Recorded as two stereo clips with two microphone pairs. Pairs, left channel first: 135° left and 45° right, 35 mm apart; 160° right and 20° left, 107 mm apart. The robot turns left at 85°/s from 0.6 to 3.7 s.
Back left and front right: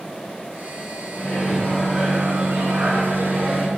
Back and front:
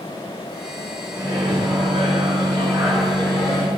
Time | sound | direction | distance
1.1 | a microwave | 90° left | 2.5 m